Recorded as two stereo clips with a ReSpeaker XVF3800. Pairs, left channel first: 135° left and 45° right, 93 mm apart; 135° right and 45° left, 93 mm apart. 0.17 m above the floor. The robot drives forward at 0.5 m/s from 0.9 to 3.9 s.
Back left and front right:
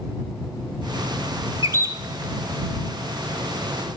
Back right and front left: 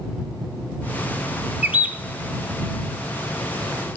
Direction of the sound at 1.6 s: 15° right.